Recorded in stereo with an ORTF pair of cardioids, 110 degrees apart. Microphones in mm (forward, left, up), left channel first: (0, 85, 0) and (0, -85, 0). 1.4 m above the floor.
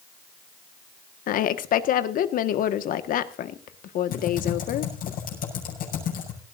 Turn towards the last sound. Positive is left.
turn(degrees=60)